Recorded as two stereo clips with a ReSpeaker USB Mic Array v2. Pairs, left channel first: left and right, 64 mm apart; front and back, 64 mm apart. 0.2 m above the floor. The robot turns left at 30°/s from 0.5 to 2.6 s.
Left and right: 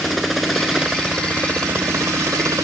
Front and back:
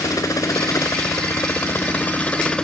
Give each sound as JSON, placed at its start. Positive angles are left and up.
{"t": 0.0, "sound": "a helicopter", "azimuth_deg": 0}